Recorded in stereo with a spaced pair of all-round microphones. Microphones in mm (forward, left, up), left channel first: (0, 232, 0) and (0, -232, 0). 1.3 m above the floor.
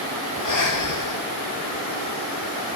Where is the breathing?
45° left (ahead or behind), 0.6 m.